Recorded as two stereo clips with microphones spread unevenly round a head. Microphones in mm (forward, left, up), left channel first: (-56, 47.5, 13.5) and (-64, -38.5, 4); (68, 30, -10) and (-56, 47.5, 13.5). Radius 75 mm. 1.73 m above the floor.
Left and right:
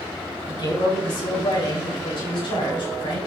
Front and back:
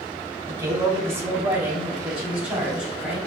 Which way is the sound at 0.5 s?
105° left.